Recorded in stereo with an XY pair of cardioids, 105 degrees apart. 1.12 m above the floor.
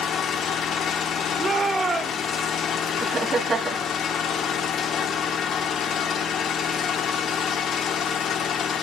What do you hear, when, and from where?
0.0 s an engine running: 65° left, 1.6 m
1.4 s a shout: 35° right, 3 m
3.0 s laughter: 40° right, 1.3 m